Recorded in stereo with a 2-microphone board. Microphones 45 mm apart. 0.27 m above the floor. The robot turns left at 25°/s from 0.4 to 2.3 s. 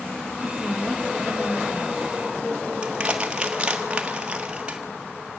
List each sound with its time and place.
0.4 s a woman speaking: 170° left, 2 m; by 2.1 s 130° left, 2 m
2.8 s crushing: 25° right (ahead or behind), 1.5 m